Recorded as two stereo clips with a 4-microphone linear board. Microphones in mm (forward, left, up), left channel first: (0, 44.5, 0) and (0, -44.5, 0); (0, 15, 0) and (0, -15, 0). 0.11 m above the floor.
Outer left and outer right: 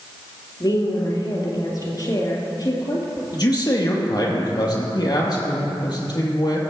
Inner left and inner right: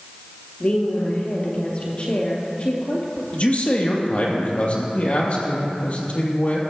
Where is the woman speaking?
45° left (ahead or behind), 2.5 m.